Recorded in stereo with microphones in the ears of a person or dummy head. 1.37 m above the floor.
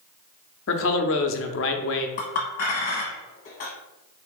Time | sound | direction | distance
0.7 | a man speaking | 60° left (ahead or behind) | 0.6 m
2.2 | a clink | 45° left (ahead or behind) | 1.0 m